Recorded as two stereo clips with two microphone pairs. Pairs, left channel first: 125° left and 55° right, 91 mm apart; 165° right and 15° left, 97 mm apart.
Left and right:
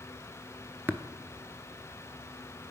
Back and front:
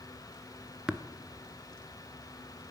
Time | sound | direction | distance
0.9 | tapping | 55° right | 0.6 m